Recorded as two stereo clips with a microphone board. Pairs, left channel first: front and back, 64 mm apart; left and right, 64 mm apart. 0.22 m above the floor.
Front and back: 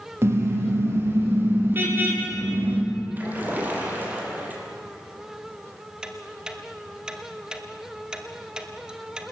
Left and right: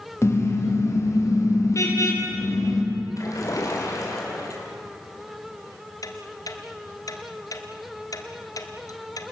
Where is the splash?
115° left, 5.5 m.